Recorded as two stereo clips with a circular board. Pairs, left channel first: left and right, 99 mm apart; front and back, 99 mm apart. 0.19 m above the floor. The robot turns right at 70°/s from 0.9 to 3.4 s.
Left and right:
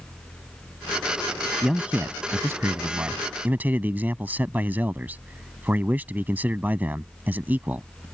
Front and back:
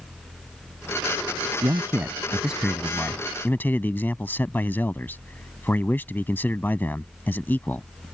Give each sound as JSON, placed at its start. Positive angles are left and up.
{"t": 1.6, "sound": "a man speaking", "azimuth_deg": -170}